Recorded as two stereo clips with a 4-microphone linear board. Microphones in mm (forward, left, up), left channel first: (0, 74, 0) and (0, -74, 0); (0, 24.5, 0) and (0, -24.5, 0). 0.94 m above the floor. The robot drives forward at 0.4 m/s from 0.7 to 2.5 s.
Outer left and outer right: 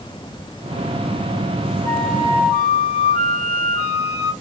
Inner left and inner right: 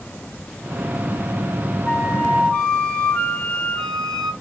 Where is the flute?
20° left (ahead or behind), 1.2 m; by 4.3 s 15° left (ahead or behind), 1.5 m.